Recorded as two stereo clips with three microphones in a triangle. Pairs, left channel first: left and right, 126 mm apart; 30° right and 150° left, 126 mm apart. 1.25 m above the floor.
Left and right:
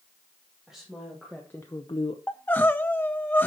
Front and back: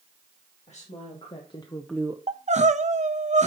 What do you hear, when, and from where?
0.7 s a woman speaking: 5° right, 2 m; by 2.2 s 105° left, 0.6 m
2.3 s crying: 165° left, 0.6 m